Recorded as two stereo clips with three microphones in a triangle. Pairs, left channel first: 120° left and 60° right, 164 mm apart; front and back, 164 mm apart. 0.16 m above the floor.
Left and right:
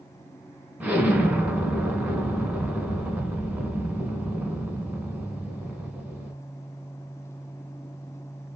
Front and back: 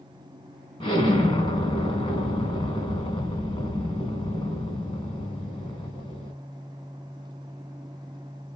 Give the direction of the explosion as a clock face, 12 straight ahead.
12 o'clock.